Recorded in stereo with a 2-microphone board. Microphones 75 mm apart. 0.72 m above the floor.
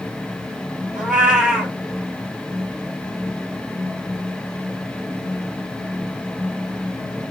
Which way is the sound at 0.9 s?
5° right (ahead or behind).